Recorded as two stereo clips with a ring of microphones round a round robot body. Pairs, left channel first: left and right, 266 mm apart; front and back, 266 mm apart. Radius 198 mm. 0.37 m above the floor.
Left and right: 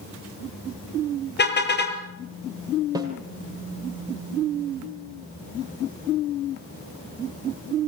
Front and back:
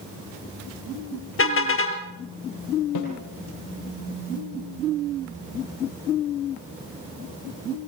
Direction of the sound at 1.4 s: 40° left.